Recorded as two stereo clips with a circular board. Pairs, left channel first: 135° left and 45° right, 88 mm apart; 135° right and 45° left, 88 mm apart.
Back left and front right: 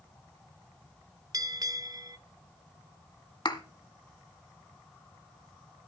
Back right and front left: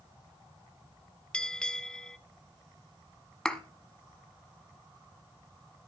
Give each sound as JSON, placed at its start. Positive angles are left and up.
{"t": 1.3, "sound": "a bell", "azimuth_deg": -55, "distance_m": 0.6}
{"t": 3.5, "sound": "a thud", "azimuth_deg": 145, "distance_m": 1.1}